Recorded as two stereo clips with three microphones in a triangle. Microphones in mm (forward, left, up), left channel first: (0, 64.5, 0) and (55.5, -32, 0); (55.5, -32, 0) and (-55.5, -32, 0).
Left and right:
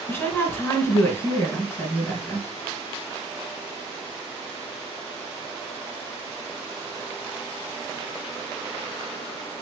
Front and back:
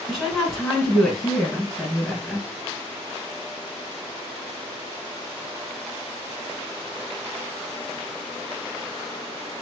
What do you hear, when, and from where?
0.1 s a woman speaking: 90° left, 1.6 m